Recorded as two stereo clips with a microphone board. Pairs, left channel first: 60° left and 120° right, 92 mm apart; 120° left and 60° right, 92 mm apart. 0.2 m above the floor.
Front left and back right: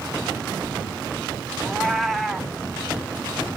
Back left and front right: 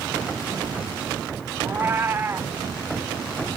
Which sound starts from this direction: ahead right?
A cat meowing, at 1.6 s.